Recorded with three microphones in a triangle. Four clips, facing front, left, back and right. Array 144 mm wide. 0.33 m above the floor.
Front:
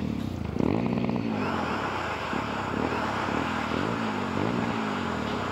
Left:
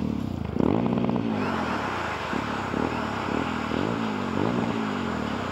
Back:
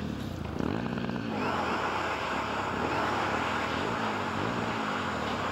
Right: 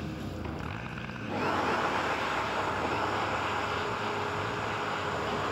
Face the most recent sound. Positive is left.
turn(degrees=70)